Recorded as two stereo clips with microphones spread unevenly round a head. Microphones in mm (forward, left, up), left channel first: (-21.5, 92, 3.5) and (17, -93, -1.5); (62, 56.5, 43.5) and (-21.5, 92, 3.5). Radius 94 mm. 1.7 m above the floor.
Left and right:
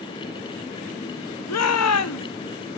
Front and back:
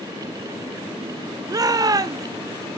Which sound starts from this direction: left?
A shout, at 1.5 s.